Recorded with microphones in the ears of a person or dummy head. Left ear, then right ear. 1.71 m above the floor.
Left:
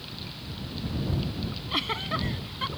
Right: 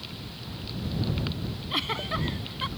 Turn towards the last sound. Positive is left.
turn(degrees=0)  # may be behind; listen again after turning